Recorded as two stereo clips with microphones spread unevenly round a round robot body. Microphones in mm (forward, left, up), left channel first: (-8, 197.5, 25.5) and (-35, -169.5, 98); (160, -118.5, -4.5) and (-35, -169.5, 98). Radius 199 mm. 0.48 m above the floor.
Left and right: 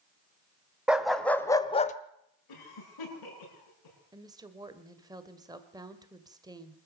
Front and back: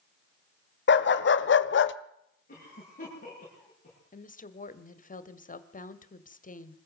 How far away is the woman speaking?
About 1.9 m.